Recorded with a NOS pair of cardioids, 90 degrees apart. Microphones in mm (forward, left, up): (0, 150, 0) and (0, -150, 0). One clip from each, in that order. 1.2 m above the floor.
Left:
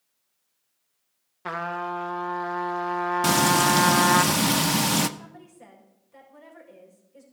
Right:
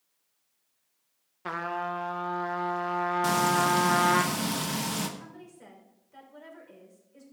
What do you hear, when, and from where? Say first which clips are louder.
1.4 s a trumpet: left 2 dB; 10° left, 0.9 m
3.2 s frying: left 5 dB; 45° left, 0.8 m
5.2 s a woman speaking: left 1 dB; 10° right, 5.5 m